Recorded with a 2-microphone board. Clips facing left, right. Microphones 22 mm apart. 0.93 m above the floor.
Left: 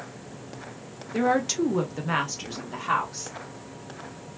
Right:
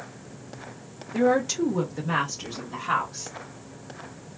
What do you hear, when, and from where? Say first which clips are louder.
1.1 s a woman speaking: right 1 dB; 20° left (ahead or behind), 0.8 m